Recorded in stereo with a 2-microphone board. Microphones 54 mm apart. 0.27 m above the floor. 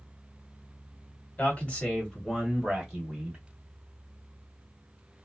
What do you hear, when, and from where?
1.4 s a man speaking: 25° left (ahead or behind), 1.5 m; by 3.4 s 15° right (ahead or behind), 1.6 m